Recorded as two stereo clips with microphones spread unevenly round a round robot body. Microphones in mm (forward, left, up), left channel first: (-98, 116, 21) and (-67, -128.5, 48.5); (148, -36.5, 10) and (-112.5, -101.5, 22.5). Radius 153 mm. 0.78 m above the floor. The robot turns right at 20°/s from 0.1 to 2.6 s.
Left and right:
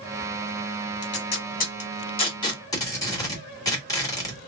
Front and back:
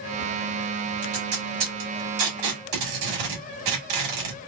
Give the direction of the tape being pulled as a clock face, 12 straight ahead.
7 o'clock.